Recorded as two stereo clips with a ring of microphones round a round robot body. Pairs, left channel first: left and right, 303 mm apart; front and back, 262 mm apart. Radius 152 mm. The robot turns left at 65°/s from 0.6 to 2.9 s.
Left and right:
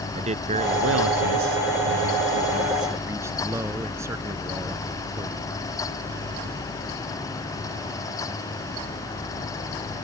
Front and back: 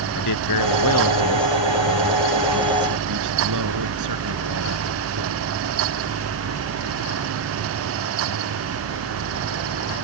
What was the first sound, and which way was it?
A man speaking, 20° right.